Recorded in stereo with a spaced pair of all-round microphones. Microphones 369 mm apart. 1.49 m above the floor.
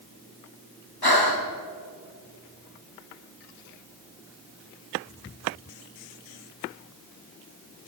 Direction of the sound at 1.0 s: 85° left.